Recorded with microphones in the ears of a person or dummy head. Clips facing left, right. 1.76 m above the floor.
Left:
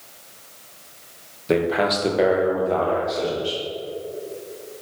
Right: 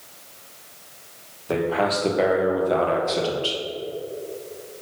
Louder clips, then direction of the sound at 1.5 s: Left 2 dB; 35° left (ahead or behind).